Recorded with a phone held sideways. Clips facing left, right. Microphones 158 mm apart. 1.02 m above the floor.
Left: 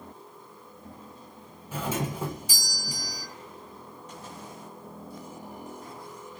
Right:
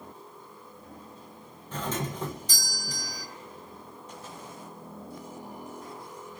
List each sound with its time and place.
1.7 s a doorbell: 10° left (ahead or behind), 0.5 m